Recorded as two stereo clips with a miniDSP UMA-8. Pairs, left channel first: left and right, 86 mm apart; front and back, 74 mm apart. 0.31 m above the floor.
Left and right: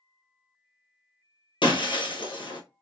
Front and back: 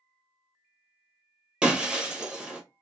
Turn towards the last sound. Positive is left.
turn(degrees=100)